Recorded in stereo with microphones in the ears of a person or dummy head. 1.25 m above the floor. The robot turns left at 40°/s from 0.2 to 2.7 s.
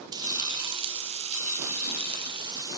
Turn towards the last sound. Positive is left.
turn(degrees=-145)